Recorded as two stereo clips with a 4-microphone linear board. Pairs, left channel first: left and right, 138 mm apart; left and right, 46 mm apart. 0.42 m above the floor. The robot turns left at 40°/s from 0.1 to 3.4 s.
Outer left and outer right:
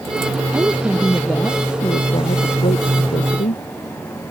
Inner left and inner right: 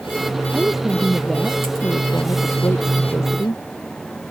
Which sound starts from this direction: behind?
A woman speaking, at 0.5 s.